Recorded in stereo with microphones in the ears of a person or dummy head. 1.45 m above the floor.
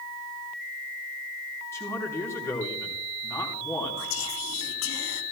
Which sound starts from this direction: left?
Whispering, at 4.0 s.